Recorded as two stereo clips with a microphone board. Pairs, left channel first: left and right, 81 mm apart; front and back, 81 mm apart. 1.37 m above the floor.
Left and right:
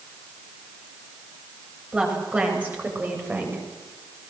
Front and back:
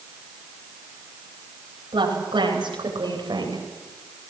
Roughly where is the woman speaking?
Behind.